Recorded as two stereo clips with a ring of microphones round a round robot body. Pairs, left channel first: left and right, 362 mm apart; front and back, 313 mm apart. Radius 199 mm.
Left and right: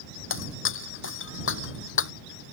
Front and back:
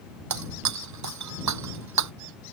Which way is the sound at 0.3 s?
150° left.